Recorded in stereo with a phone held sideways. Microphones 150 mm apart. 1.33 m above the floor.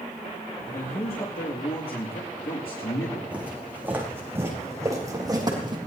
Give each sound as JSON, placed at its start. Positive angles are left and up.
{"t": 0.7, "sound": "a man speaking", "side_deg": 85, "distance_m": 2.0}
{"t": 3.3, "sound": "footsteps", "side_deg": -10, "distance_m": 5.0}